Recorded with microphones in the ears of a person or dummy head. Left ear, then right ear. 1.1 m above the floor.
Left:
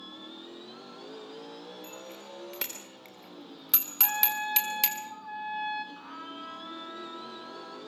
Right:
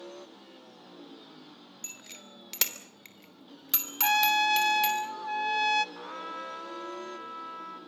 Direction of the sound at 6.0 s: 25° right (ahead or behind).